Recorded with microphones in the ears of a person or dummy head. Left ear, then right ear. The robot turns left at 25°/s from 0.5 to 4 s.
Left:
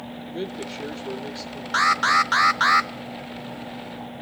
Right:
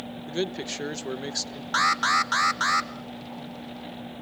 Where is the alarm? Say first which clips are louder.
Left 3 dB; centre (ahead or behind), 0.7 m; by 2.9 s 30° left (ahead or behind), 0.7 m.